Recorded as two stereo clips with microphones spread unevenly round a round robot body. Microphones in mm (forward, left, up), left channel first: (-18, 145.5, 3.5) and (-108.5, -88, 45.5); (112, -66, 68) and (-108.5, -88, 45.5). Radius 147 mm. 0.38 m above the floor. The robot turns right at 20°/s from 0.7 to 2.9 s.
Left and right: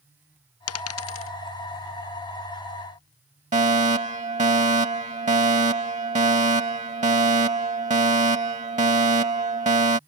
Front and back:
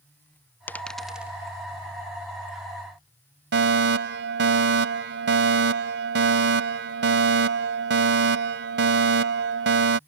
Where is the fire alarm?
175° right.